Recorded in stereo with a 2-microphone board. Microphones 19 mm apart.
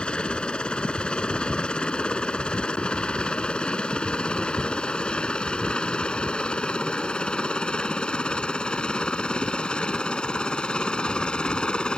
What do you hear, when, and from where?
0.0 s a helicopter: 65° left (ahead or behind); by 12.0 s 60° left (ahead or behind)